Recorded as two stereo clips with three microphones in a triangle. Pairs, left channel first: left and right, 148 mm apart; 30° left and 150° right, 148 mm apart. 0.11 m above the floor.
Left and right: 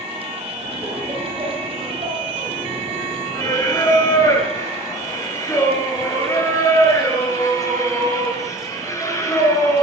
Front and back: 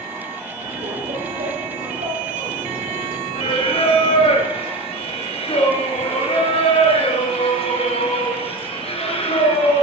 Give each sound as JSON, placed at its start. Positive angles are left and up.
{"t": 0.6, "sound": "laughter", "azimuth_deg": -155, "distance_m": 4.0}
{"t": 3.4, "sound": "singing", "azimuth_deg": 35, "distance_m": 1.9}